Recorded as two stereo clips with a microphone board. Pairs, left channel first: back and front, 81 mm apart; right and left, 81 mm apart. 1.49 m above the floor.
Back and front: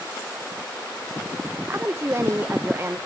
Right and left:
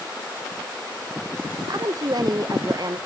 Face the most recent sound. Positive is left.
turn(degrees=60)